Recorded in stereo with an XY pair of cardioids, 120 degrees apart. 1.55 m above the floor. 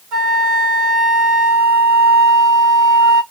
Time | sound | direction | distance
0.1 | a flute | 65° right | 2 m